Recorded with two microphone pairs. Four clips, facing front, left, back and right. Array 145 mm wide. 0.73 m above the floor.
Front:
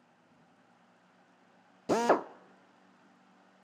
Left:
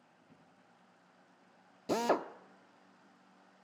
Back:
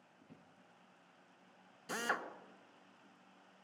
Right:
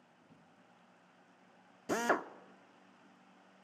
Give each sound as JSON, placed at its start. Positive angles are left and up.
{"t": 0.2, "sound": "a drawer", "azimuth_deg": 180, "distance_m": 5.5}
{"t": 1.9, "sound": "a drill", "azimuth_deg": 10, "distance_m": 0.5}